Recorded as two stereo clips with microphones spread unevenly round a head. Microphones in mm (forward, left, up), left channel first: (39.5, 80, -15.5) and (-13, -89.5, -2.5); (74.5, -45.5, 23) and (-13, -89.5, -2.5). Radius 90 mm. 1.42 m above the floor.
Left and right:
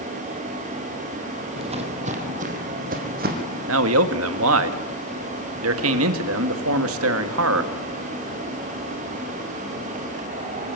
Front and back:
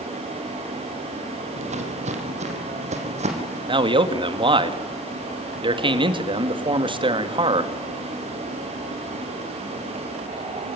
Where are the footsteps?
160° right, 2.5 m; by 3.6 s 145° right, 4 m.